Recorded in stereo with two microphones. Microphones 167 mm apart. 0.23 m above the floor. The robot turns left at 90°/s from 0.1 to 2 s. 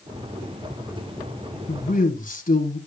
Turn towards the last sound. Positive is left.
turn(degrees=55)  # may be behind; listen again after turning